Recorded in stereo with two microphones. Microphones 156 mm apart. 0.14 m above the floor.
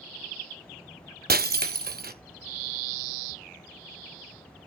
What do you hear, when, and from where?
1.3 s breaking glass: 80° right, 0.8 m